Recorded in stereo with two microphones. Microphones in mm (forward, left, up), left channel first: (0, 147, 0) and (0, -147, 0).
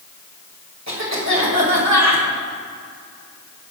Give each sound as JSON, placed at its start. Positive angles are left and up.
{"t": 0.9, "sound": "a cough", "side_deg": -65, "distance_m": 2.0}